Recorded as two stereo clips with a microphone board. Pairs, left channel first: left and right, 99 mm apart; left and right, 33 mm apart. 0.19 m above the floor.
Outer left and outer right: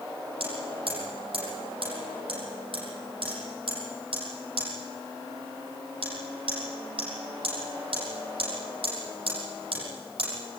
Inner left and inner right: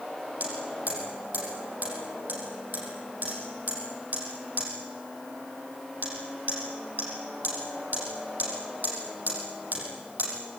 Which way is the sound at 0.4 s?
65° right (ahead or behind).